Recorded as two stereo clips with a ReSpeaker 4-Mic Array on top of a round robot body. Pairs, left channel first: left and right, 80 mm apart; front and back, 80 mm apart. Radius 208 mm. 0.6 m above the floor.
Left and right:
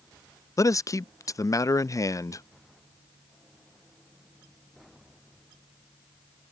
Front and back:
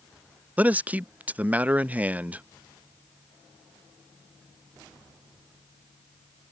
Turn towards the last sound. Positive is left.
turn(degrees=115)